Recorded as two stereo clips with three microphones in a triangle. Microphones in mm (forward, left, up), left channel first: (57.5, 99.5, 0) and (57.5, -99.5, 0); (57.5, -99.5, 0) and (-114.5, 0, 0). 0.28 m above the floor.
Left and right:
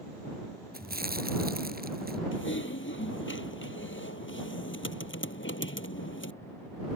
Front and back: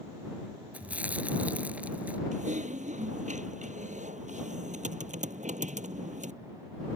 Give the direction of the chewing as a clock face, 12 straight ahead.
4 o'clock.